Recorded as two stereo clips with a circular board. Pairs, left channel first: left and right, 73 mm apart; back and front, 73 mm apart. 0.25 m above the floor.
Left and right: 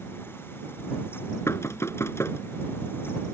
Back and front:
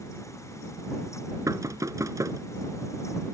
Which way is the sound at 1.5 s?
40° left.